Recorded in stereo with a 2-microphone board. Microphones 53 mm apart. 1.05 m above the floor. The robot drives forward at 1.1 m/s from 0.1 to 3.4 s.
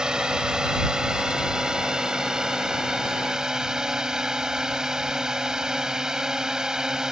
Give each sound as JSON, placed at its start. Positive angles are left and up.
{"t": 0.0, "sound": "a drone", "side_deg": -15}